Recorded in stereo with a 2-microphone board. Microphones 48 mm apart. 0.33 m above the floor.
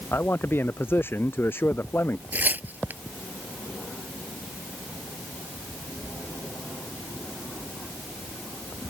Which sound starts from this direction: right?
Tearing paper, at 2.3 s.